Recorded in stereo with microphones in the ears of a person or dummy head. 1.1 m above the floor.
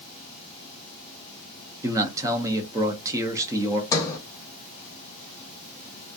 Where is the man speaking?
20° right (ahead or behind), 0.5 m.